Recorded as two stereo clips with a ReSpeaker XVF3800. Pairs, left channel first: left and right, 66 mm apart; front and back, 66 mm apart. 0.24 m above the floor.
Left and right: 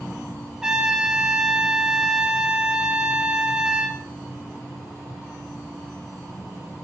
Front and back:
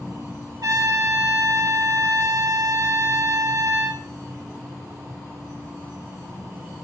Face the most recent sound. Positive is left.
turn(degrees=-165)